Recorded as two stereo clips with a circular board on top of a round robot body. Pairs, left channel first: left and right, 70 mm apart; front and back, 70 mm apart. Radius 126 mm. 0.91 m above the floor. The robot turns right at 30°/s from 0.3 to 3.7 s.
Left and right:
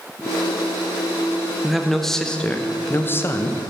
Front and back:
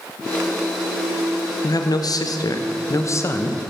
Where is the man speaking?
5° right, 0.8 m; by 3.7 s 55° left, 0.8 m.